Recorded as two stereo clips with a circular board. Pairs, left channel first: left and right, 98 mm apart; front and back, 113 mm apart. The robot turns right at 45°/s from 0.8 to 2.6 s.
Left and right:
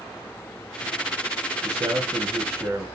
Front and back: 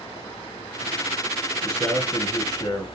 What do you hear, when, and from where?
1.6 s a man speaking: 80° right, 2 m; by 2.9 s 35° right, 2 m